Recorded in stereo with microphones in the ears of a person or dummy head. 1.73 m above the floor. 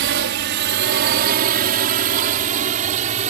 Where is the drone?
60° right (ahead or behind); by 3.3 s 40° right (ahead or behind).